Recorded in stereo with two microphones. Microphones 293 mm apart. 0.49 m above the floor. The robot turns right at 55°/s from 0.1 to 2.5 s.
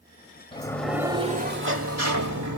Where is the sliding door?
160° left, 1.1 m; by 2.6 s 90° right, 1.1 m.